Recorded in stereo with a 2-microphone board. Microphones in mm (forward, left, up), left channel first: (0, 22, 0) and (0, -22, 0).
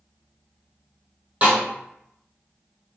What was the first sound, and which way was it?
A snare drum, 30° right (ahead or behind).